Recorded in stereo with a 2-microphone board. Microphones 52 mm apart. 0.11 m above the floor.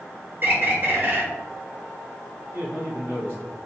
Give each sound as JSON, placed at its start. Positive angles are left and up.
{"t": 0.4, "sound": "a bird", "side_deg": -35, "distance_m": 1.1}
{"t": 2.5, "sound": "a man speaking", "side_deg": -35, "distance_m": 1.5}